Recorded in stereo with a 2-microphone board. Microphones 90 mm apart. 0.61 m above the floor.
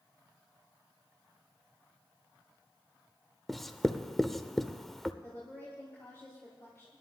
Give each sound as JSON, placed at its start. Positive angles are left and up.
{"t": 3.5, "sound": "writing", "side_deg": 0, "distance_m": 0.6}
{"t": 5.2, "sound": "a woman speaking", "side_deg": 30, "distance_m": 4.0}